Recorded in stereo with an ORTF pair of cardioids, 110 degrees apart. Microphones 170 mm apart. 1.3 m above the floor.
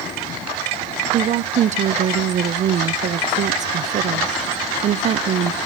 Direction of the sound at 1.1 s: 45° right.